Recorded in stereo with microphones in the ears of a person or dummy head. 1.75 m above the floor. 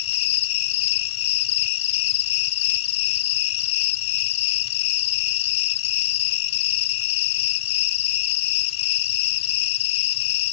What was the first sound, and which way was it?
An insect, 30° left (ahead or behind).